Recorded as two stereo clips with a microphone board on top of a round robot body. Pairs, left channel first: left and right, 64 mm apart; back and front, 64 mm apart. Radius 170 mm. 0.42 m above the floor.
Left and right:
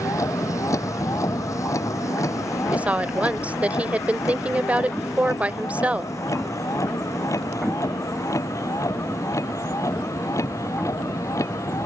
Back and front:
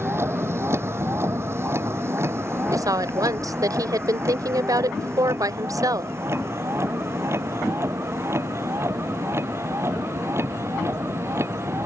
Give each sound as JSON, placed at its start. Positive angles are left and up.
{"t": 0.0, "sound": "a vehicle", "azimuth_deg": 55}
{"t": 2.7, "sound": "a woman speaking", "azimuth_deg": -20}